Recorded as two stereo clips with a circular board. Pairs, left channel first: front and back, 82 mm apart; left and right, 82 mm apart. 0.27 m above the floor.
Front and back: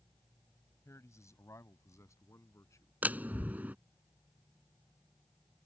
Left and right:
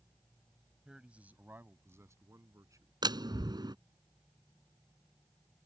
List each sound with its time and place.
0.8 s a man speaking: 10° right; by 2.9 s 50° right
3.0 s a door slam: 110° right